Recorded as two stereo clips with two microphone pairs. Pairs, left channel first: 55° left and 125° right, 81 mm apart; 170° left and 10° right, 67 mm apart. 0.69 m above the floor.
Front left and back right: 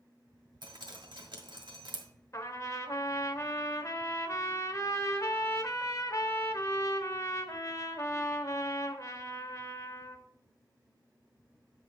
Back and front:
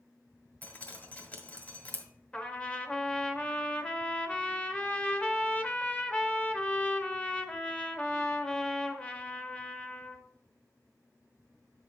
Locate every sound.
0.6 s dripping: 120° right, 1.6 m
2.3 s a trumpet: 100° left, 0.8 m